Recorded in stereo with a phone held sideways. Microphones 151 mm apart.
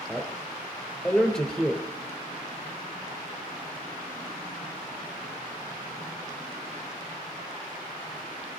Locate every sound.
0.1 s a man speaking: 5° left (ahead or behind), 3.5 m